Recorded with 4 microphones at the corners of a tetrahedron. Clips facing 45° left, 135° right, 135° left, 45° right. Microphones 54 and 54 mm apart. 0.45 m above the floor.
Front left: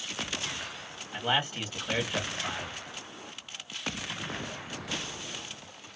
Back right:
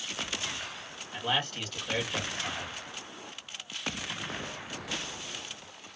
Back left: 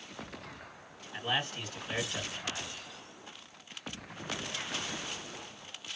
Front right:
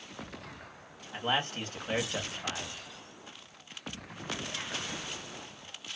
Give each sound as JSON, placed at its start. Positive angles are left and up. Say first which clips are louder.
{"t": 1.1, "sound": "a man speaking", "louder": "front left 2 dB, front right 3 dB", "azimuth_deg": -25, "distance_m": 1.4}